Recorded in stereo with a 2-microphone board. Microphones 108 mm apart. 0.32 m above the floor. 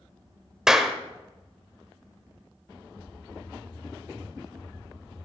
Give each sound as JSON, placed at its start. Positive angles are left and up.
{"t": 0.7, "sound": "a clap", "side_deg": -5, "distance_m": 0.8}